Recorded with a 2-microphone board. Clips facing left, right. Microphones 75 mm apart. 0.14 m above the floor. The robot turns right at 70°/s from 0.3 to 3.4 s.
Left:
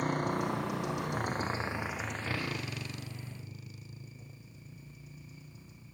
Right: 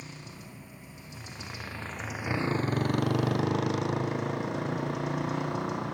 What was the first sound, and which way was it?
A motorcycle, 55° left.